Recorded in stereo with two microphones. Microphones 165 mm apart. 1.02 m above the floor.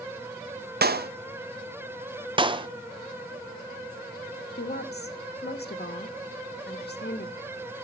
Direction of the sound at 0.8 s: 75° right (ahead or behind).